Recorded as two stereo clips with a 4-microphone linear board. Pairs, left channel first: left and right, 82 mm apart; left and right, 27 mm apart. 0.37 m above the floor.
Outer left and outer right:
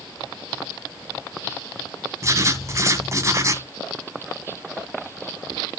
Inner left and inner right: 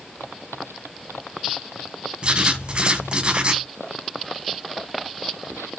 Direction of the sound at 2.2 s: 35° right (ahead or behind).